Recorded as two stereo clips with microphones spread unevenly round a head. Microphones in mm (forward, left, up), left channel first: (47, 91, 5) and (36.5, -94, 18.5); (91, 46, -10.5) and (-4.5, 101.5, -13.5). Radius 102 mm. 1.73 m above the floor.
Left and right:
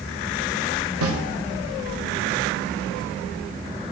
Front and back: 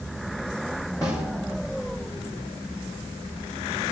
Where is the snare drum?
105° right, 1.1 m.